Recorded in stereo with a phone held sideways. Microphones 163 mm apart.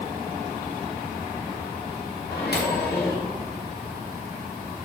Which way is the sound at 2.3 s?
75° left (ahead or behind).